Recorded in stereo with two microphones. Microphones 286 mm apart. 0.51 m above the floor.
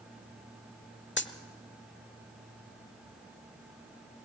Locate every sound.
1.2 s a dropped coin: 40° left (ahead or behind), 0.9 m